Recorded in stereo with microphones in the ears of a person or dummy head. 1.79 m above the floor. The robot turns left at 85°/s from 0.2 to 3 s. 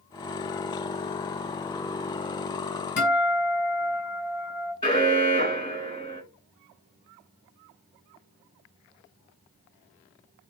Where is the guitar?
55° left (ahead or behind), 2.5 m.